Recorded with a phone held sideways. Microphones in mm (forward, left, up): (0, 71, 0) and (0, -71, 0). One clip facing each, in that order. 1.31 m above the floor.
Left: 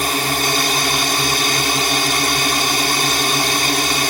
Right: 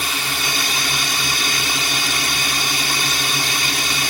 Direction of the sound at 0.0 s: 50° left (ahead or behind).